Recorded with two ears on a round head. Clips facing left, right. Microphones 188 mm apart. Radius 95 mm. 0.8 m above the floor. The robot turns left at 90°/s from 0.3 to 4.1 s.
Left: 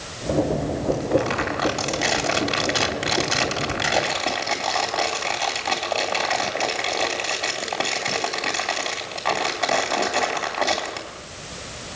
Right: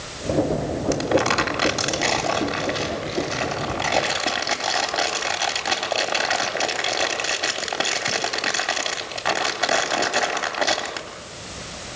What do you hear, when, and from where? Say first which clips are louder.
0.9 s crumpling: right 1 dB; 80° right, 3 m; by 11.1 s 10° right, 3 m